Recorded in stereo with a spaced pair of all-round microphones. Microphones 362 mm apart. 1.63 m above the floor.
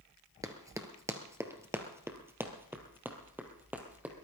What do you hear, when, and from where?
0.4 s running footsteps: 10° right (ahead or behind), 1.7 m; by 4.1 s 5° right (ahead or behind), 3 m